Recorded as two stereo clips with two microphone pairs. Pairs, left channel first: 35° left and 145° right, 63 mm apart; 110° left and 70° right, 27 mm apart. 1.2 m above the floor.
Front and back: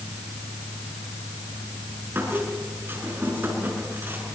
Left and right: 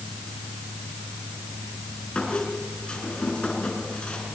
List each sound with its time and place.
2.1 s a squeak: 155° left, 5.5 m